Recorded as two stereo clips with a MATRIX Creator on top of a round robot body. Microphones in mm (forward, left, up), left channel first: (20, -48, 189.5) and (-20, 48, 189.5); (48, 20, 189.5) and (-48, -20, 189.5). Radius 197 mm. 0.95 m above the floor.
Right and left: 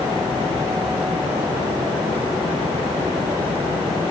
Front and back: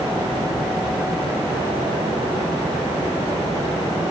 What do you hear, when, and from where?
Only background noise.